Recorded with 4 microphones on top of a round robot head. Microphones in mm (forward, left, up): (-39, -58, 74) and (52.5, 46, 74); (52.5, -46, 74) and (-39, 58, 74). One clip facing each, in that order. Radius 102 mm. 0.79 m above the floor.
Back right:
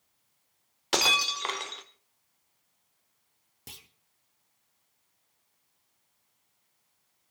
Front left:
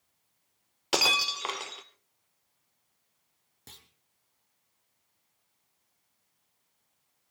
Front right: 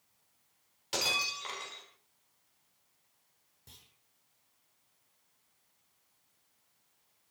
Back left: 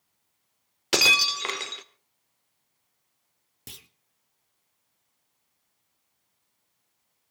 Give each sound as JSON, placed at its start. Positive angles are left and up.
{"t": 0.9, "sound": "breaking glass", "azimuth_deg": 135, "distance_m": 1.2}
{"t": 3.7, "sound": "a clunk", "azimuth_deg": 150, "distance_m": 0.9}